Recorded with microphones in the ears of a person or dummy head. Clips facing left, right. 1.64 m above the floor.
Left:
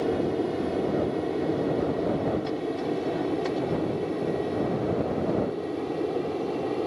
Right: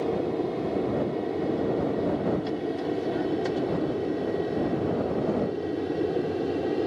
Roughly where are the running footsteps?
No running footsteps in this recording.